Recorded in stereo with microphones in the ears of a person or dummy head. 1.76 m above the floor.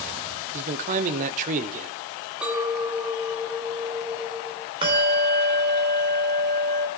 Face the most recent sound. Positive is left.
turn(degrees=-25)  # may be behind; listen again after turning